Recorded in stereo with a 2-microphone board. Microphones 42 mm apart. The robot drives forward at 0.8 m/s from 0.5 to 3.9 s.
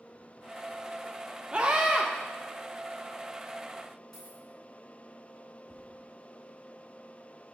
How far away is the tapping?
About 1.7 m.